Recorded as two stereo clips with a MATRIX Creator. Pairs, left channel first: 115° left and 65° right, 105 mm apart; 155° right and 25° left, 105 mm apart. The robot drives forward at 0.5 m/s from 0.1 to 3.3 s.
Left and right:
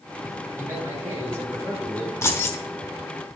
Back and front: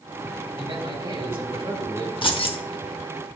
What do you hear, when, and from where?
0.6 s a man speaking: 5° right, 4 m
2.2 s keys jangling: 175° left, 0.9 m